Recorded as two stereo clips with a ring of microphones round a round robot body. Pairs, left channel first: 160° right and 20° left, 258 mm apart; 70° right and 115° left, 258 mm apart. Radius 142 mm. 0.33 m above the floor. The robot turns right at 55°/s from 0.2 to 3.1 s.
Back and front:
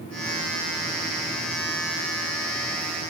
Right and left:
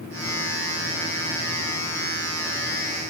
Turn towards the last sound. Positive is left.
No sound to turn to.